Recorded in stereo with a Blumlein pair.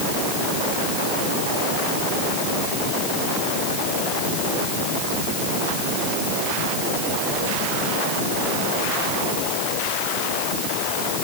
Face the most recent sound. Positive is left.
No sound to turn to.